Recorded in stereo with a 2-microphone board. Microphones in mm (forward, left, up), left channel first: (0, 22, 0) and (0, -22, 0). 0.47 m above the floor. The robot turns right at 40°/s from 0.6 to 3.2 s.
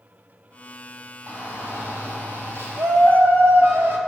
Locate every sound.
1.3 s a shout: 120° right, 2.5 m; by 4.0 s 45° right, 2.5 m